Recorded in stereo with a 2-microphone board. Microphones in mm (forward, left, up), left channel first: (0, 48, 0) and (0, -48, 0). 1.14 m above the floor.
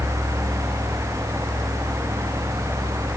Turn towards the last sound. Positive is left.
No sound to turn to.